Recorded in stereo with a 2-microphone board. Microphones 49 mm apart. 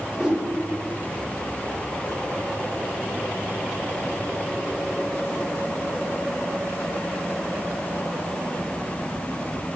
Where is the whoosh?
20° right (ahead or behind), 0.9 m.